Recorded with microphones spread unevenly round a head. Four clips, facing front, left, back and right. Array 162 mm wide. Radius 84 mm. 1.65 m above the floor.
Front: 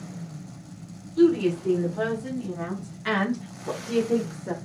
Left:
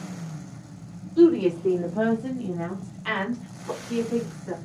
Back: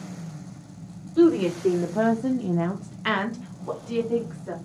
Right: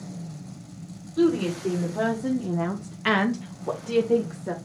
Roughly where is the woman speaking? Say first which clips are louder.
Left 5 dB, back 1 dB; behind.